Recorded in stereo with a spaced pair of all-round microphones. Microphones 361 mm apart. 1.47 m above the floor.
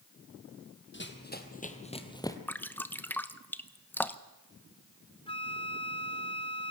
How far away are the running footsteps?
About 1.9 m.